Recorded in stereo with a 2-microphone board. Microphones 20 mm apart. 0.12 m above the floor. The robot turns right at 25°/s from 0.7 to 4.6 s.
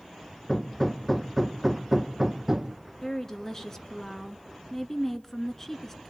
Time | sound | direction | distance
0.5 | hammering | 160° left | 1.3 m
3.0 | a woman speaking | 25° left (ahead or behind) | 1.4 m